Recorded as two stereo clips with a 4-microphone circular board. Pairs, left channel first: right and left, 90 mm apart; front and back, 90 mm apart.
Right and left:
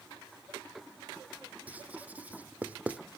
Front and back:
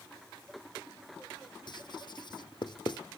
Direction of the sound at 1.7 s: 20° left.